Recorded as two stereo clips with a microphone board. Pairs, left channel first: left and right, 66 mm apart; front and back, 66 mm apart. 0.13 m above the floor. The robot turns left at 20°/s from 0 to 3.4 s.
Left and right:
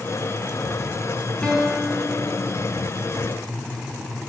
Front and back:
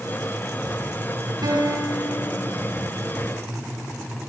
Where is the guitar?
165° left, 9 m; by 2.5 s 145° left, 9 m.